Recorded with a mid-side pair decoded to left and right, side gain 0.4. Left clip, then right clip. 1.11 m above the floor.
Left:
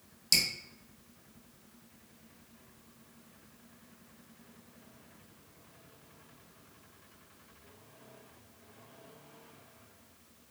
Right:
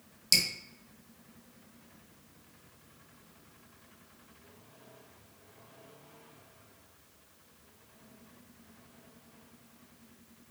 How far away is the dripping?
About 0.8 m.